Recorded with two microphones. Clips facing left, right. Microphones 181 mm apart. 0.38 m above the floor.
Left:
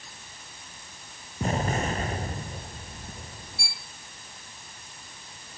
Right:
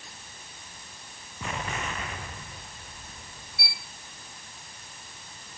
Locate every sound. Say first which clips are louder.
1.4 s an explosion: left 7 dB; 40° left (ahead or behind)
3.6 s a violin: right 1 dB; 70° right (ahead or behind)